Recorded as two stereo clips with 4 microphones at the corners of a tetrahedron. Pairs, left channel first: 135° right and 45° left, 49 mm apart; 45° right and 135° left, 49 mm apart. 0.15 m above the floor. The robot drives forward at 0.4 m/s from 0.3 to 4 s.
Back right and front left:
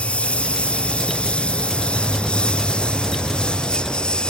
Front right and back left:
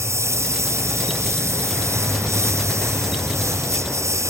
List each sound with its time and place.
0.0 s a lawn mower: 160° left; by 4.3 s 150° left